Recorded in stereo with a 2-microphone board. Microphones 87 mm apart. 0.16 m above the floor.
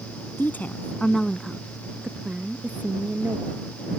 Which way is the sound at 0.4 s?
25° left (ahead or behind).